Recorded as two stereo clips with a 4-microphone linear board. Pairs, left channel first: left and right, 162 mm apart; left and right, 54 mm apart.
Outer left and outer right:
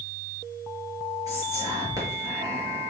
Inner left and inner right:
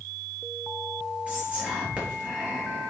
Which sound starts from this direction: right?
Whispering, at 1.3 s.